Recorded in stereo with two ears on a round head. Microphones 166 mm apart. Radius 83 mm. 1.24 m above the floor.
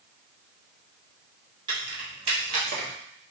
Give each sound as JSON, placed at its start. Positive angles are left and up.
{"t": 1.7, "sound": "keys jangling", "side_deg": -25, "distance_m": 2.5}